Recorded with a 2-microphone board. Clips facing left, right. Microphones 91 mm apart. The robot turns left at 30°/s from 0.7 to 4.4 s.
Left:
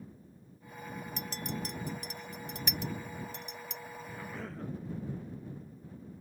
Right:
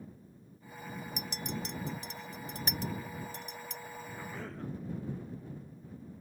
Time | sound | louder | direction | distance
1.2 | a clink | left 1 dB | 15° right (ahead or behind) | ?
4.1 | a cough | left 1 dB | 10° right (ahead or behind) | ?